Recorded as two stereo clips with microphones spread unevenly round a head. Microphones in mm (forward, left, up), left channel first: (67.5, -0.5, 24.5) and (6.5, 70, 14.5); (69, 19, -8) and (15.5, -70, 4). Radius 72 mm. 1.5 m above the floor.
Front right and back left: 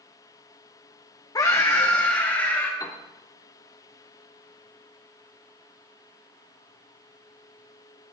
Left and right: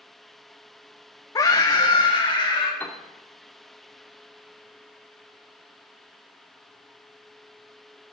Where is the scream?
Straight ahead, 0.8 m; by 2.7 s 15° left, 2.5 m.